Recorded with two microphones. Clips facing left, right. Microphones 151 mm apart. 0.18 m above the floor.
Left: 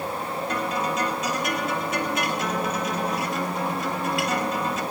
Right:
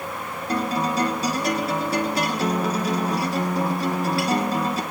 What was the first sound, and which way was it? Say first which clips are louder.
A guitar: right 5 dB; 35° right (ahead or behind).